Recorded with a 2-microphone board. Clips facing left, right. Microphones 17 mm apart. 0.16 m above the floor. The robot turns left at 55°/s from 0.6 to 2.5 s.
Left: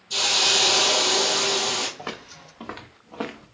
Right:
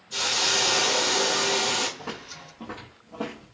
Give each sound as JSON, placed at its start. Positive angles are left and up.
{"t": 0.1, "sound": "a hiss", "azimuth_deg": 75, "distance_m": 0.8}
{"t": 2.0, "sound": "footsteps", "side_deg": 85, "distance_m": 1.7}